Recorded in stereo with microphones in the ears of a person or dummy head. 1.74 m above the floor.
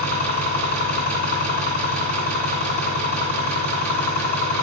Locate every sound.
0.0 s an engine running: 55° left (ahead or behind), 3.5 m